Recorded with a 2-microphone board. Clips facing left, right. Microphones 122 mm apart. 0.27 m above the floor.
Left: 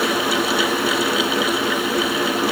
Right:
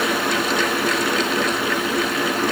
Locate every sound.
Only background noise.